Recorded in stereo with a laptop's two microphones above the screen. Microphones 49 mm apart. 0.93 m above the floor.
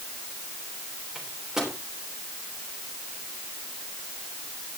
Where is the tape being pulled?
I don't hear tape being pulled.